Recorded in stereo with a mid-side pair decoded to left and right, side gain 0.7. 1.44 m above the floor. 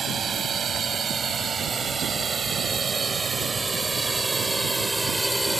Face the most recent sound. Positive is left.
turn(degrees=-5)